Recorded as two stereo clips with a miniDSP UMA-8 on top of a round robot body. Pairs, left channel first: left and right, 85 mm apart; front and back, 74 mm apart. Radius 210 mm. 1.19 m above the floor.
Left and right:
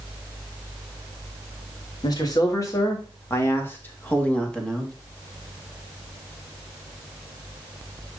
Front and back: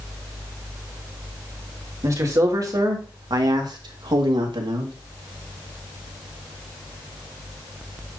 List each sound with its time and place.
2.0 s a man speaking: 135° left, 2.5 m; by 4.9 s 175° left, 2 m